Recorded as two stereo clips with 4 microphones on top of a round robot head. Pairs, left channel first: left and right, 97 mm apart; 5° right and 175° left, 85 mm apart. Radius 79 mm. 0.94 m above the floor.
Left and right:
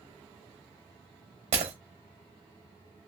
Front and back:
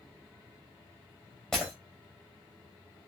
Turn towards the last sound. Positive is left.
turn(degrees=-90)